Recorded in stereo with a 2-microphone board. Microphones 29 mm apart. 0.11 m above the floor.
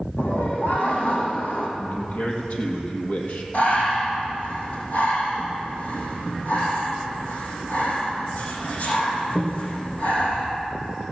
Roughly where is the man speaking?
Left.